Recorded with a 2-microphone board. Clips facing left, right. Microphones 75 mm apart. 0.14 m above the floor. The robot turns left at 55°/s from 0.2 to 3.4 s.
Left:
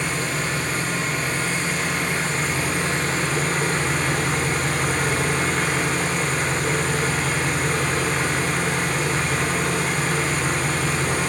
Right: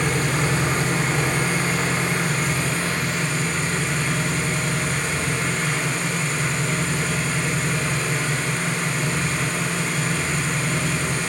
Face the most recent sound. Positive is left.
turn(degrees=130)